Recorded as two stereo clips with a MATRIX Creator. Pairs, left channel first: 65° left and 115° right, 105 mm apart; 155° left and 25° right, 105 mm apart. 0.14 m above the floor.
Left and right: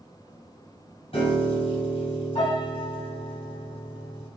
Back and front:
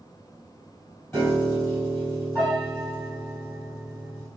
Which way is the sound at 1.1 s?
90° left.